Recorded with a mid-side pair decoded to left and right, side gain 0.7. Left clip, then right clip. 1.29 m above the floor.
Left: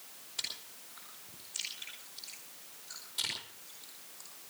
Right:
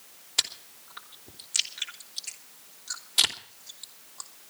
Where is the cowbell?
I don't hear a cowbell.